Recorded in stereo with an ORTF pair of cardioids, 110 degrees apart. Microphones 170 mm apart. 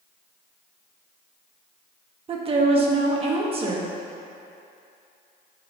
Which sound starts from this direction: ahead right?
A woman speaking, at 2.3 s.